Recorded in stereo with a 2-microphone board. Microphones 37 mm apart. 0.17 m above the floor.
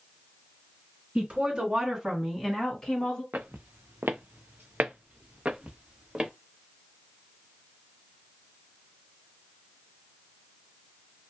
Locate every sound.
1.1 s a woman speaking: 35° right (ahead or behind), 2.5 m; by 3.2 s 25° left (ahead or behind), 1.9 m
3.3 s footsteps: 60° right (ahead or behind), 0.8 m; by 6.3 s 20° right (ahead or behind), 1.5 m